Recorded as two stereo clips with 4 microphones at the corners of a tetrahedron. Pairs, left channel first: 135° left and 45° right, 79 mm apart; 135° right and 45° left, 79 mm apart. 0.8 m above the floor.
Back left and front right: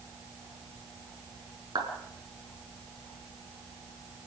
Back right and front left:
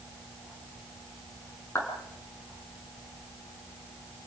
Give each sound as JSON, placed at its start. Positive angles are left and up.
{"t": 1.8, "sound": "a clap", "azimuth_deg": -75, "distance_m": 6.0}